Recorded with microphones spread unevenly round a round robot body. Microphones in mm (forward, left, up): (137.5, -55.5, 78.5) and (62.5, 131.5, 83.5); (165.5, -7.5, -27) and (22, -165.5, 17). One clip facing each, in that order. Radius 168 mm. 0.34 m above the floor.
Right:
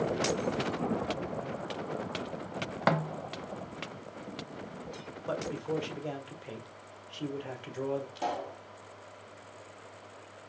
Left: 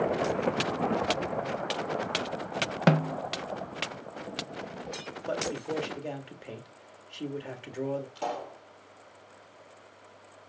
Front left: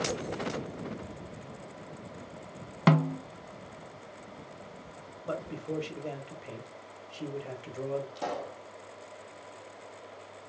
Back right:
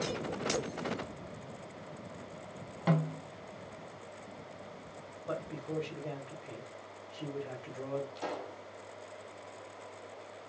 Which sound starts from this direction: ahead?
A pop, at 8.2 s.